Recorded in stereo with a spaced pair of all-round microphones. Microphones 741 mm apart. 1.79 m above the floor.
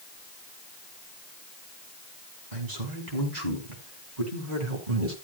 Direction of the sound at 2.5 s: 80° right.